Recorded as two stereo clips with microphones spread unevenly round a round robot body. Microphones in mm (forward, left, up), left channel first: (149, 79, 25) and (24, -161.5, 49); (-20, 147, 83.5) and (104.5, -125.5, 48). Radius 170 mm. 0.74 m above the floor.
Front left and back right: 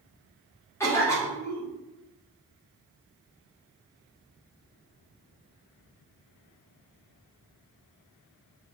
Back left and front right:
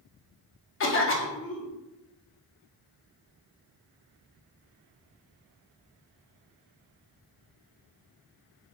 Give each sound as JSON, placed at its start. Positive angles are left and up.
{"t": 0.8, "sound": "a cough", "azimuth_deg": 125, "distance_m": 0.6}